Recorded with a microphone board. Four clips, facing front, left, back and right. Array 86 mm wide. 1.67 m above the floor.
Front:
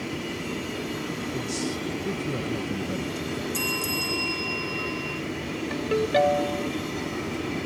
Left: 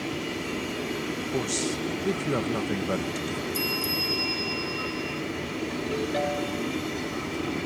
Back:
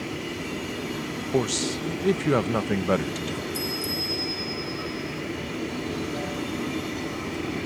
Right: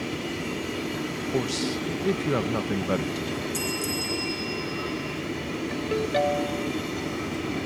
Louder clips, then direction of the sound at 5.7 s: Right 4 dB, front 7 dB; 10° right.